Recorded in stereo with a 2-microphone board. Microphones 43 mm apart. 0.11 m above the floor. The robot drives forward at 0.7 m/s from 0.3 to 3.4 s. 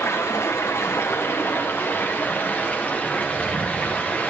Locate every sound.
0.0 s running water: 85° left, 1.3 m; by 4.3 s 30° left (ahead or behind), 2.5 m